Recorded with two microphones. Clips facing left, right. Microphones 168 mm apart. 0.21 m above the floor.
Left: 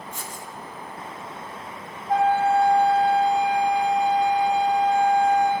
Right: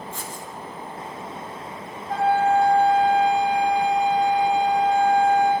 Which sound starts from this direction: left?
A flute, at 2.1 s.